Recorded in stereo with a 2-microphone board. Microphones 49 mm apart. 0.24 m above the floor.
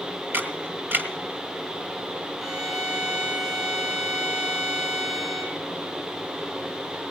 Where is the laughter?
No laughter in this recording.